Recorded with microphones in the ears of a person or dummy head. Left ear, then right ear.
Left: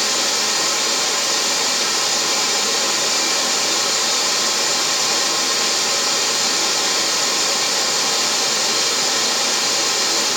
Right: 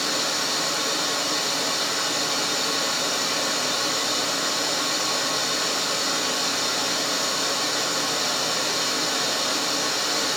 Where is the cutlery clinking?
I don't hear cutlery clinking.